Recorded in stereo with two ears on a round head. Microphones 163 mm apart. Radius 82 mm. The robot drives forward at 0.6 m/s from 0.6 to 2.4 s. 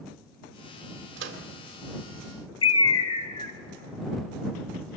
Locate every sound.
1.2 s a microwave: 75° right (ahead or behind), 1.7 m
2.6 s a bird: 25° left (ahead or behind), 0.7 m